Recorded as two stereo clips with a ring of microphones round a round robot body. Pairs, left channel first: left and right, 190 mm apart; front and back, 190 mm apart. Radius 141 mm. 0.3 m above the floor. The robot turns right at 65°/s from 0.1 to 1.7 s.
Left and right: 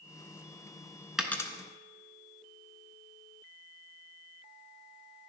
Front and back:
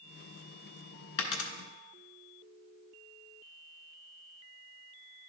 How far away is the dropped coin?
About 0.9 m.